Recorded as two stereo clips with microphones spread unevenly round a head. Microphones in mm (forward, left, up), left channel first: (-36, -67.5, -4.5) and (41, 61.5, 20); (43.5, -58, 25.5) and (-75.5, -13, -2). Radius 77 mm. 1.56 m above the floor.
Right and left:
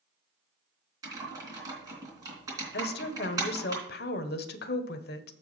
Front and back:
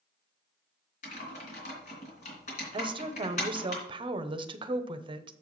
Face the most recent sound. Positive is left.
turn(degrees=-145)